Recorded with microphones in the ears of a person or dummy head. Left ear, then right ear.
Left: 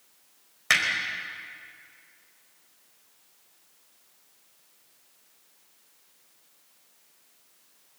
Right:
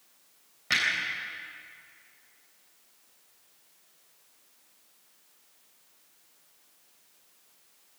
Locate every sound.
0.7 s hammering: 50° left (ahead or behind), 4 m